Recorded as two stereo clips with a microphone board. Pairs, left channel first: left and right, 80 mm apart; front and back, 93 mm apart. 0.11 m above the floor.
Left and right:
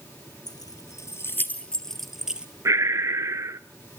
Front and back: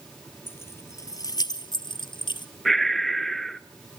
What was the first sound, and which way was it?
Keys jangling, 65° left.